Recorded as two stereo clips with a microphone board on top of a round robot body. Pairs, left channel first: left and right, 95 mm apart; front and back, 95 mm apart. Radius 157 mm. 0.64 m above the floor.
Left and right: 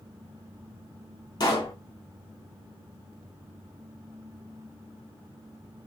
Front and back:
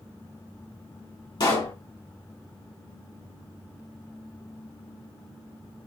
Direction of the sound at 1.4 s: 45° left.